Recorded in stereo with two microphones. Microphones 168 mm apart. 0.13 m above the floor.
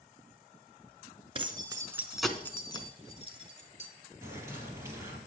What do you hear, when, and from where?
1.4 s keys jangling: 35° right (ahead or behind), 1.0 m; by 3.9 s 50° left (ahead or behind), 1.5 m
4.2 s a bird: 20° right (ahead or behind), 2.5 m